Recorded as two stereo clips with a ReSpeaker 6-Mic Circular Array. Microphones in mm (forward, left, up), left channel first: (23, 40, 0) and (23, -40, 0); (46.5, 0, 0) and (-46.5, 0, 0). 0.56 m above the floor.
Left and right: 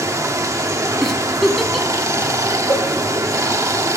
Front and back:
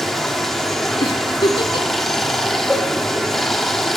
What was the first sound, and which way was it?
Running water, 85° right.